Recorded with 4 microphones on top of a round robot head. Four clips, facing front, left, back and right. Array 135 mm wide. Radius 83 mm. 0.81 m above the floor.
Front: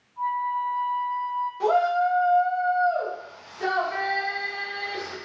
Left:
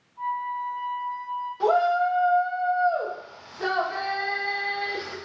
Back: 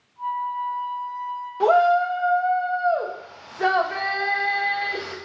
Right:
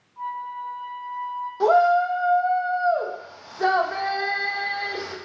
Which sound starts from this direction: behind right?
A shout, at 1.6 s.